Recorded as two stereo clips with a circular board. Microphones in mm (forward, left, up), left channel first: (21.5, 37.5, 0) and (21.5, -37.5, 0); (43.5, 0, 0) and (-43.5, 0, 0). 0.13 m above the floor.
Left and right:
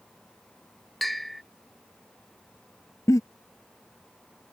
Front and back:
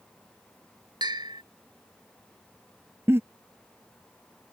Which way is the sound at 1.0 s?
Straight behind.